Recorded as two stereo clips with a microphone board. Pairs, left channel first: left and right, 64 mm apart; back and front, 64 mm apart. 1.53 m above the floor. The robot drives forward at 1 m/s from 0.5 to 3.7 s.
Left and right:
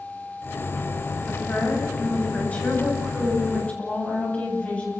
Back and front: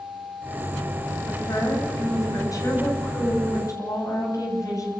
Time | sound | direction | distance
1.3 | a woman speaking | 150° left | 9 m